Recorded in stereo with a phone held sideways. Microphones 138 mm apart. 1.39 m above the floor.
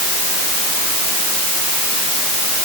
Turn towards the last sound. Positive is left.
No sound to turn to.